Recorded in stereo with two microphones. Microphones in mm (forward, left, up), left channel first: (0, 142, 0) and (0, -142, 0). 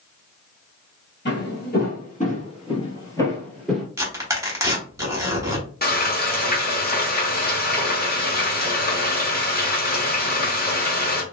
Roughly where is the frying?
Left.